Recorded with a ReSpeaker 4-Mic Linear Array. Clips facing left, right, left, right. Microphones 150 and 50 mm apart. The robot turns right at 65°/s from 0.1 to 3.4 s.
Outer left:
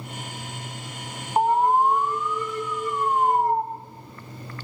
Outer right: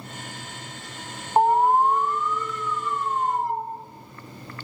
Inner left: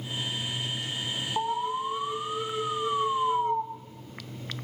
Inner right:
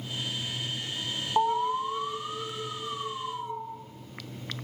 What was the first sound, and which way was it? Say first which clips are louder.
An alarm: outer right 1 dB, inner right 4 dB; 30° right.